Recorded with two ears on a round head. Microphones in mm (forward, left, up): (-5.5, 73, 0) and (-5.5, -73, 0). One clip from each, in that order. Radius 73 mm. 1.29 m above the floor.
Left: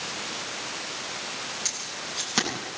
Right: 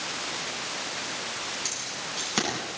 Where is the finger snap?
I don't hear a finger snap.